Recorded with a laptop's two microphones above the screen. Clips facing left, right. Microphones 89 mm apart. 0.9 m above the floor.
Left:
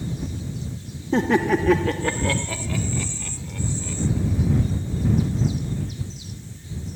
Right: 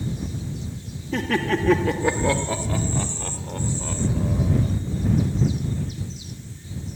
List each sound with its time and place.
1.1 s laughter: 30° left (ahead or behind); by 4.7 s 60° right (ahead or behind)